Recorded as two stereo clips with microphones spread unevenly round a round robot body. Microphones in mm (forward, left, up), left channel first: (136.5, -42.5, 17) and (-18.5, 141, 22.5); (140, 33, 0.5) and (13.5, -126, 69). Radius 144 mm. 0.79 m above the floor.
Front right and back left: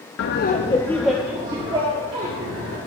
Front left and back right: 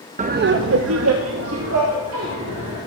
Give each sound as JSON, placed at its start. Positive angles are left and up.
{"t": 0.2, "sound": "laughter", "azimuth_deg": -65, "distance_m": 0.7}